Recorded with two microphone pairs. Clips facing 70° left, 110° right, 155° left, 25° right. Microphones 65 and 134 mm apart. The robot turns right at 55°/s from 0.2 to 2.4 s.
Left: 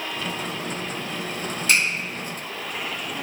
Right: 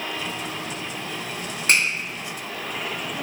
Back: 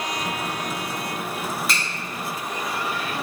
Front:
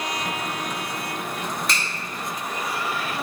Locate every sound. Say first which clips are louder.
1.7 s a finger snap: right 1 dB, even; 120° right, 1.4 m; by 1.8 s 110° right, 1.4 m